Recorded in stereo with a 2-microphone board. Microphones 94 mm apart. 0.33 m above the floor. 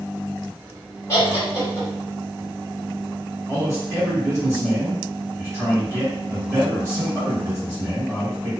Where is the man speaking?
25° right (ahead or behind), 1.6 m.